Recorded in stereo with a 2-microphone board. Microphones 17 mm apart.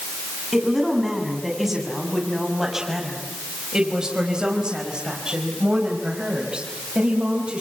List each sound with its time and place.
0.5 s a woman speaking: 10° right (ahead or behind), 7 m; by 7.6 s 80° right, 5.5 m